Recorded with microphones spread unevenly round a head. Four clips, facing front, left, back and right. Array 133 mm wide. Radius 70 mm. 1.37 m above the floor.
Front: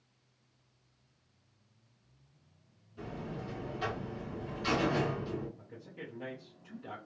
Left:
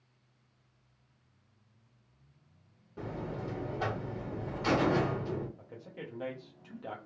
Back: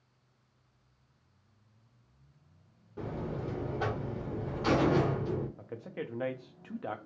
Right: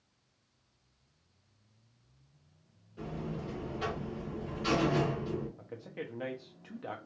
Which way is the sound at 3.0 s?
150° left.